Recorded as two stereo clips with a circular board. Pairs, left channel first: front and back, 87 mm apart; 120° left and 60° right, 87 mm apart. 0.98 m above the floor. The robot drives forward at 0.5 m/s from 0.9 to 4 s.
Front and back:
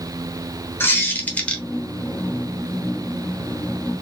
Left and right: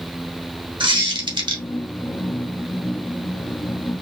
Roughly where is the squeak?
Ahead right.